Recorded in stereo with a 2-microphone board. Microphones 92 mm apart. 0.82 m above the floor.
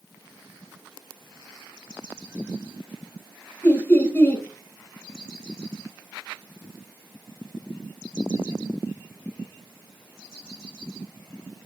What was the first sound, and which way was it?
Laughter, 20° left (ahead or behind).